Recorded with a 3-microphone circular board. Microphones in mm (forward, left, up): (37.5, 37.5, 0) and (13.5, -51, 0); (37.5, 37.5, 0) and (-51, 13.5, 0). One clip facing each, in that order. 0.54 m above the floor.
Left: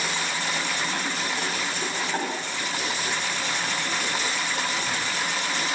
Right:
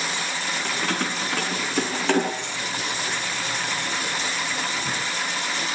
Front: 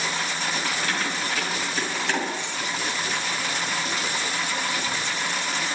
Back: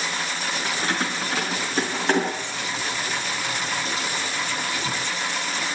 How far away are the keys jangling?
About 4.5 m.